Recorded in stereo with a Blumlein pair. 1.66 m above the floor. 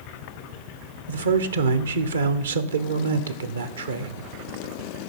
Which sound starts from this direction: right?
A man speaking, at 1.1 s.